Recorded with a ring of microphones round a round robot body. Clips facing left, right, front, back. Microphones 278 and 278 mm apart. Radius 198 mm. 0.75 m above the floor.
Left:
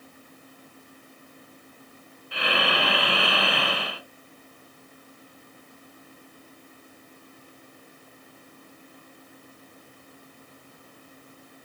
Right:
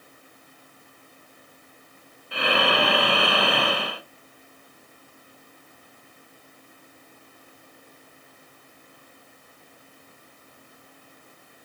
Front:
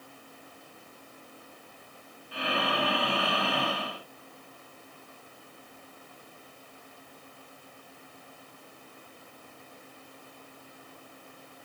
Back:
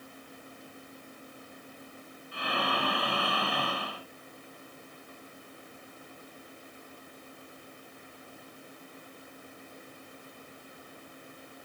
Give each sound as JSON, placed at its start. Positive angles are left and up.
{"t": 2.3, "sound": "breathing", "azimuth_deg": -50, "distance_m": 1.0}